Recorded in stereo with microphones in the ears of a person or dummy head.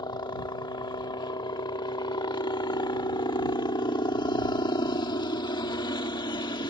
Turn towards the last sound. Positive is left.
turn(degrees=25)  # may be behind; listen again after turning